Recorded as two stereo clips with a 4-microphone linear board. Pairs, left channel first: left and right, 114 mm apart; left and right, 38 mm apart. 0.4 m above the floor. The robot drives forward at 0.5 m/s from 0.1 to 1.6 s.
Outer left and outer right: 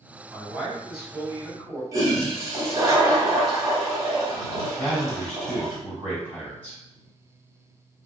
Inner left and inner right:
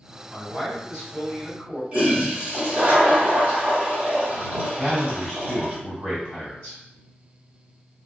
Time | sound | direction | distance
0.3 | a man speaking | 10° right (ahead or behind) | 1.8 m
1.9 | a toilet flushing | 30° right (ahead or behind) | 1.0 m
4.8 | a man speaking | 20° left (ahead or behind) | 1.9 m